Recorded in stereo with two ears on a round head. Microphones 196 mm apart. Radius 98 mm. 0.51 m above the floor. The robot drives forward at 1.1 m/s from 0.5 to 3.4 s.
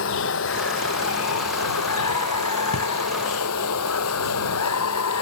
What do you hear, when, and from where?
0.0 s running water: 65° left (ahead or behind); by 5.2 s 80° left
2.7 s a drawer: 75° left (ahead or behind)